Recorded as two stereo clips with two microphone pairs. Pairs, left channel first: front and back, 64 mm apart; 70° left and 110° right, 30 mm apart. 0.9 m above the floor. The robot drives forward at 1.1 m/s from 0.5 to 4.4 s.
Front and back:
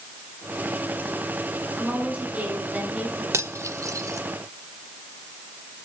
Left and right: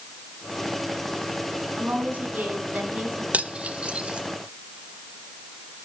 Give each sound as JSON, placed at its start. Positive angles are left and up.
{"t": 1.8, "sound": "a woman speaking", "azimuth_deg": -110, "distance_m": 8.5}
{"t": 3.3, "sound": "cutlery clinking", "azimuth_deg": -145, "distance_m": 1.3}